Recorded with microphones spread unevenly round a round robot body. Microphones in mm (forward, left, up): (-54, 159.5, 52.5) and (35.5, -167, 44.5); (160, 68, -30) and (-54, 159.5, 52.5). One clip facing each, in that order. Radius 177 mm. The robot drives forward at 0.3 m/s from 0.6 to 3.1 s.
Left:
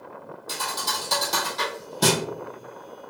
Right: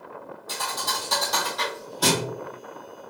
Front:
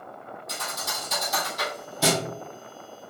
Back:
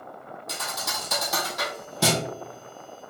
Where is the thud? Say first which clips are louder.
Even, back 1 dB; 160° left, 1.6 m; by 2.2 s 165° left, 2 m.